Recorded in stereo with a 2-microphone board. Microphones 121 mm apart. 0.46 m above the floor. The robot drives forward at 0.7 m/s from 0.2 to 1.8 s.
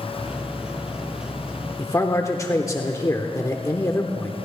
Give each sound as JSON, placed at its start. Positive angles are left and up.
{"t": 1.8, "sound": "a man speaking", "side_deg": 25, "distance_m": 1.0}